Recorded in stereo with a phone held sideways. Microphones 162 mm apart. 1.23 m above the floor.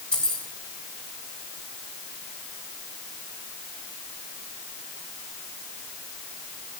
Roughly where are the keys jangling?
Centre.